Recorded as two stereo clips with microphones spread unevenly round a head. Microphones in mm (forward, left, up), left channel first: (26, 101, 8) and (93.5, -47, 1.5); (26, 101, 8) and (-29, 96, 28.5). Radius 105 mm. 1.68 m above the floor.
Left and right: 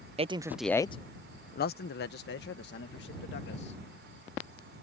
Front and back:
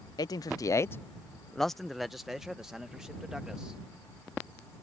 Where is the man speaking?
15° right; by 3.8 s 115° left.